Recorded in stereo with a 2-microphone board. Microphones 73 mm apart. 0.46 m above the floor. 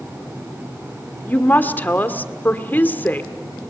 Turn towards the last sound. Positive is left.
turn(degrees=25)  # may be behind; listen again after turning